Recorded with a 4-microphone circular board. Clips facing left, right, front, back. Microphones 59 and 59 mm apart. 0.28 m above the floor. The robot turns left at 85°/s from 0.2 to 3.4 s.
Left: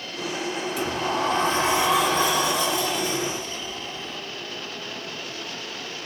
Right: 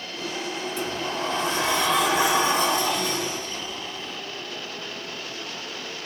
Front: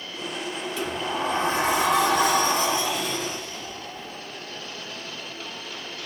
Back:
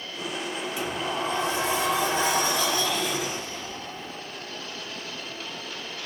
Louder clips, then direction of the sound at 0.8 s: Left 4 dB, front 2 dB; 110° left.